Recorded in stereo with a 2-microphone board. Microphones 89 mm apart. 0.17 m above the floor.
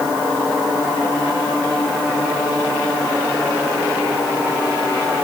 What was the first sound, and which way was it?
Only background noise.